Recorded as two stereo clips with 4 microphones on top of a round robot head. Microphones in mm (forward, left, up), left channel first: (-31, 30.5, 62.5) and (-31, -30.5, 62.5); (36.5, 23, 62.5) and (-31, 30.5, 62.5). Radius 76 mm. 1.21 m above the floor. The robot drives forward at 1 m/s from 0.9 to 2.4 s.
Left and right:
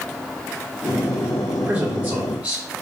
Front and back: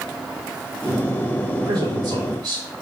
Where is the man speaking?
145° right, 3.5 m; by 2.6 s 150° right, 4.5 m.